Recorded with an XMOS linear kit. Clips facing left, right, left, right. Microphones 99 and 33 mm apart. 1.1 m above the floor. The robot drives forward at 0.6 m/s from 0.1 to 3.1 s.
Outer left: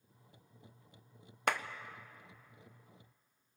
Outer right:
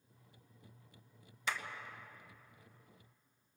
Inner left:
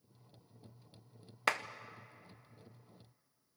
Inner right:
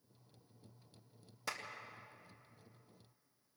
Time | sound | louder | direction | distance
1.5 | a clap | outer left 6 dB, inner left 11 dB | 60° left (ahead or behind) | 0.8 m